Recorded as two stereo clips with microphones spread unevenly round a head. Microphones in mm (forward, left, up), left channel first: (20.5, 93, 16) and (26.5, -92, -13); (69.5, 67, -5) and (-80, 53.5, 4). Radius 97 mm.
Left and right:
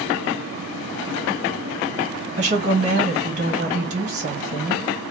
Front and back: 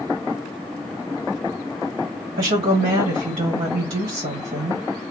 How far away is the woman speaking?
About 1.6 m.